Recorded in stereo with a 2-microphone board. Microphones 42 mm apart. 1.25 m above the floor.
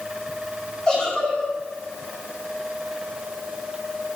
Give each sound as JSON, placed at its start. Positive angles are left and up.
{"t": 0.9, "sound": "a giggle", "side_deg": 20, "distance_m": 3.5}